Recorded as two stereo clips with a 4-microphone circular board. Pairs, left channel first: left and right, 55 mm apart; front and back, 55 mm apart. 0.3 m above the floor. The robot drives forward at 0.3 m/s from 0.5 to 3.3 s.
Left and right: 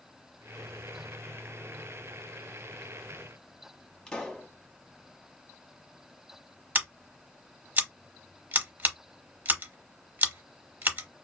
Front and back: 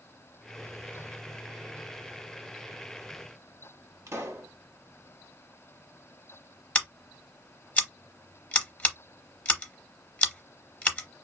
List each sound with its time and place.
4.1 s a pop: 165° left, 0.9 m
6.8 s scissors: 55° right, 0.7 m